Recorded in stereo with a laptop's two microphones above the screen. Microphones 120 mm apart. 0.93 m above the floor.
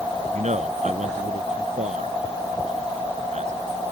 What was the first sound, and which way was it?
A man speaking, 80° right.